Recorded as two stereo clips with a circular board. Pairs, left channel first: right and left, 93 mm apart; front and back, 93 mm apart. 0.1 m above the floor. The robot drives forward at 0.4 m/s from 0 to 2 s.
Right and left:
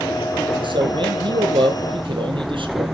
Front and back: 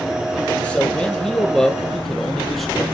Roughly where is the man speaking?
Left.